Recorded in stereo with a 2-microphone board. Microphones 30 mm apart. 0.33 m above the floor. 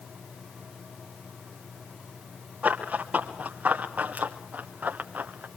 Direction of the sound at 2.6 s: 55° right (ahead or behind).